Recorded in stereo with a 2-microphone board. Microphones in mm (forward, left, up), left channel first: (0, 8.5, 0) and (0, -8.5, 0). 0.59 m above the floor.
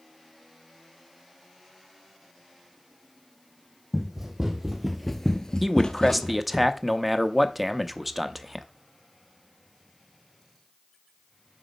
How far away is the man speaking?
About 0.6 m.